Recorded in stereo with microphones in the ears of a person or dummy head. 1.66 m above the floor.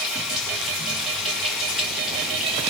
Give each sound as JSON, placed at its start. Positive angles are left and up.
{"t": 0.0, "sound": "running water", "side_deg": 0, "distance_m": 2.0}